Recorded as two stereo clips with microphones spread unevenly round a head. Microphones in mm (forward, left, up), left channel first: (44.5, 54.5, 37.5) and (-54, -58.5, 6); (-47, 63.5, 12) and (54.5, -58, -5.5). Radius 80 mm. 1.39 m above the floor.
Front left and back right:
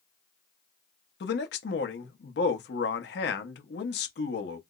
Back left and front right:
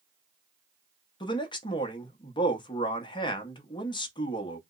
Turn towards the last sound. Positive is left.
turn(degrees=70)